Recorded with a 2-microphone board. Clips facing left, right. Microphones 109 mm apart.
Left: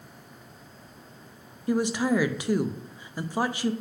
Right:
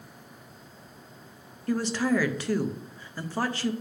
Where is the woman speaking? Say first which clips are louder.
Left 1 dB; 15° left (ahead or behind), 0.5 m.